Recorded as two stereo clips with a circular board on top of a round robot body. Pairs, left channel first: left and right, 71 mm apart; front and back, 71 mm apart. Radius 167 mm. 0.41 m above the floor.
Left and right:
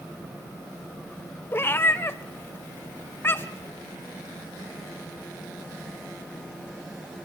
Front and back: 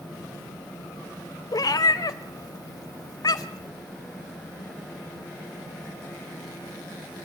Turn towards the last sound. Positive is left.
turn(degrees=30)